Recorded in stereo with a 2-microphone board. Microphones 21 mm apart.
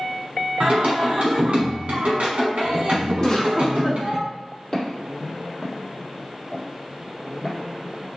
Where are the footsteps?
25° left (ahead or behind), 1.8 m; by 7.6 s 25° right (ahead or behind), 1.8 m.